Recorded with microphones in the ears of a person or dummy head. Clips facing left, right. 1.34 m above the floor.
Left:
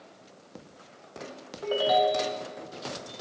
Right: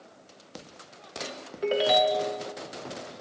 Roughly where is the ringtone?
Right.